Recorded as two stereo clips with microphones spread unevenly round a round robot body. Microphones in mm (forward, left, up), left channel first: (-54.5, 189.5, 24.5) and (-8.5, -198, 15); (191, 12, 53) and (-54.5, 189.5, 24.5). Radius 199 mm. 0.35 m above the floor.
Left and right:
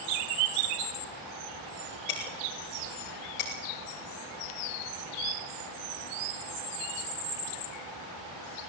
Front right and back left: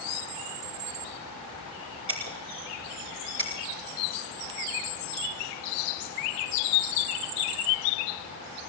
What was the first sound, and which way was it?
Breaking glass, 95° left.